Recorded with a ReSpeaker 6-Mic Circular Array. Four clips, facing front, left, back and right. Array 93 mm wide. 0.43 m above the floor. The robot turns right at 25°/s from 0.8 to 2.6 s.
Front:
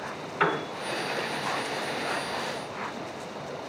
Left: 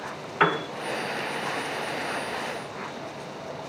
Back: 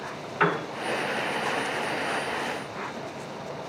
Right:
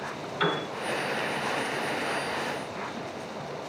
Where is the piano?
95° left, 1.2 m.